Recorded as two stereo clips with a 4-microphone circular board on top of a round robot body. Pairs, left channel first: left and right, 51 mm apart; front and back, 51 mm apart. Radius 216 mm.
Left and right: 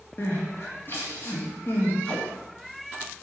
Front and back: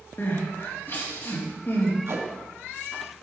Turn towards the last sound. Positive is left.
turn(degrees=155)